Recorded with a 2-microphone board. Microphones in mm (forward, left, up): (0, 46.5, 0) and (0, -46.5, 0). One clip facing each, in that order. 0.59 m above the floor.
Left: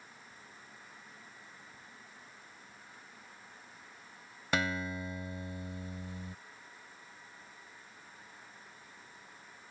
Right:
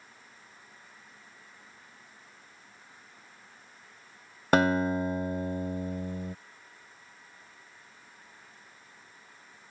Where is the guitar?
55° right (ahead or behind).